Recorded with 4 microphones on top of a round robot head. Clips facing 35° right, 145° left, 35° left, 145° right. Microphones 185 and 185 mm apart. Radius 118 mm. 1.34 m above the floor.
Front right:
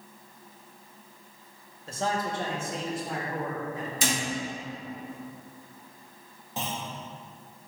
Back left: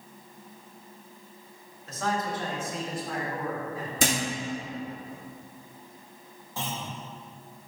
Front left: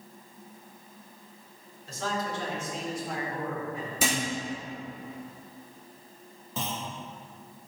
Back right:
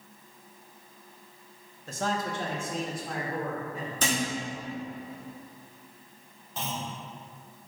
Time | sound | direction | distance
1.9 | a man speaking | 100° right | 0.9 m
4.0 | a thud | 115° left | 1.0 m
6.6 | a clunk | 35° left | 0.9 m